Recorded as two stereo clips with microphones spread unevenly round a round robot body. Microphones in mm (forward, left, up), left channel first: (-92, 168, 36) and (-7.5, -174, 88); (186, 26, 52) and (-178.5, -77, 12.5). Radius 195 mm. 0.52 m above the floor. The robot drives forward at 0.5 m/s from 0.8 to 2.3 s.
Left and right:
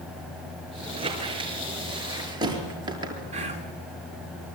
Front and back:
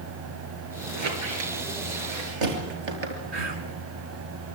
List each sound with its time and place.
0.9 s a squeak: 150° right, 4.5 m; by 3.2 s 155° right, 5.5 m
3.3 s whispering: 150° right, 5 m